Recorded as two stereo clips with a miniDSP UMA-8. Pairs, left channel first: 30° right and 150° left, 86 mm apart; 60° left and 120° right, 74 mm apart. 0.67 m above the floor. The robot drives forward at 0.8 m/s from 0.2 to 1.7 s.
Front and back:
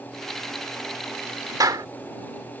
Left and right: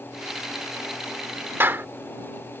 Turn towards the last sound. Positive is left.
turn(degrees=-175)